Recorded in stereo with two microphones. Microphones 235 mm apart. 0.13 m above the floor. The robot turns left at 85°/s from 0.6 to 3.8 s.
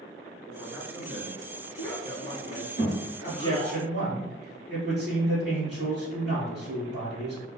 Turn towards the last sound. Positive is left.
turn(degrees=-65)